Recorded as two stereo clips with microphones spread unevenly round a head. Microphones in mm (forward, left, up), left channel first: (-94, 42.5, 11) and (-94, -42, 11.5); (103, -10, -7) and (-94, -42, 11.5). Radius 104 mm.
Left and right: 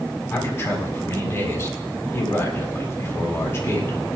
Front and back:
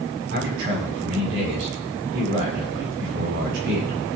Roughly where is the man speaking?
Behind left.